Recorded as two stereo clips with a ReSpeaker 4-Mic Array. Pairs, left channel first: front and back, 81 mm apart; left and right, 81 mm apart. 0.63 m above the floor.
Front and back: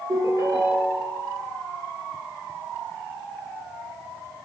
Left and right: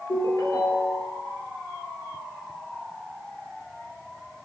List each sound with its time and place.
0.1 s a ringtone: 135° left, 6 m